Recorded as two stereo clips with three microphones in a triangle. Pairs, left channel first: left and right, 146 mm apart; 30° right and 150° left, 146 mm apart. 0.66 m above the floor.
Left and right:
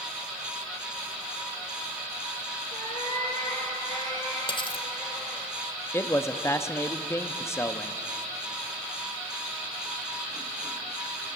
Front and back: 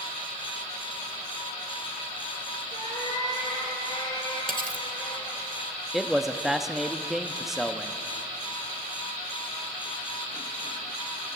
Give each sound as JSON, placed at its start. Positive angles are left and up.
{"t": 2.7, "sound": "a cat meowing", "azimuth_deg": 35, "distance_m": 5.5}
{"t": 4.5, "sound": "cutlery clinking", "azimuth_deg": 145, "distance_m": 1.4}
{"t": 5.9, "sound": "a man speaking", "azimuth_deg": 70, "distance_m": 0.7}